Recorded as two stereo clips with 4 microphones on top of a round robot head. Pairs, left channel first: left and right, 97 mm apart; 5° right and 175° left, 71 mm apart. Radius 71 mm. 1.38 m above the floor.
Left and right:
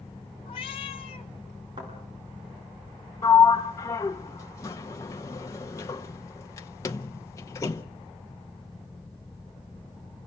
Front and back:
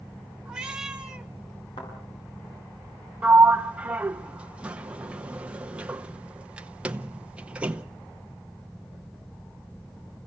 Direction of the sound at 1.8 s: 35° right.